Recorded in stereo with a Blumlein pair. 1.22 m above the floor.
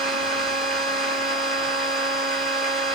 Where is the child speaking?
I don't hear a child speaking.